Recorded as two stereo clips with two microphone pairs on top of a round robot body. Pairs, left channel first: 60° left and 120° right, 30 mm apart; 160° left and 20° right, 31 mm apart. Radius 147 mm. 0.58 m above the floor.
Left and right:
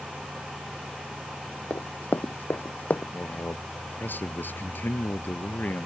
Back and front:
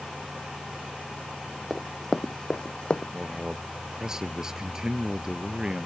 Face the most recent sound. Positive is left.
turn(degrees=50)